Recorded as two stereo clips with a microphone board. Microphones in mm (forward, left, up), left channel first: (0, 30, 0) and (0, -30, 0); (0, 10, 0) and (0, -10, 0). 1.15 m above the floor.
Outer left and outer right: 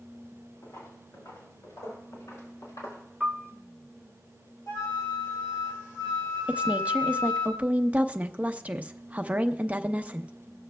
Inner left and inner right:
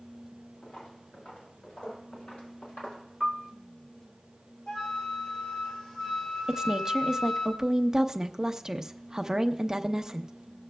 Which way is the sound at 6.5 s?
25° right (ahead or behind).